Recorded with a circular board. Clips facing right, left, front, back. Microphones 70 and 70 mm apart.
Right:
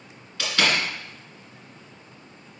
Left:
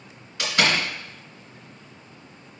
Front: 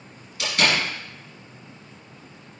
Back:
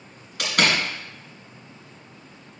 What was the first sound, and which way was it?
A door slam, 165° left.